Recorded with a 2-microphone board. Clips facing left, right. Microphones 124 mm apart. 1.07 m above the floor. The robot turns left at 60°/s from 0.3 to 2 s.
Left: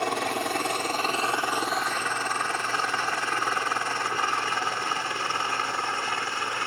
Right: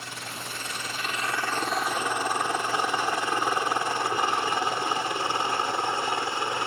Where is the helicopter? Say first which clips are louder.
Left 12 dB; 65° left (ahead or behind); by 6.7 s 20° right (ahead or behind).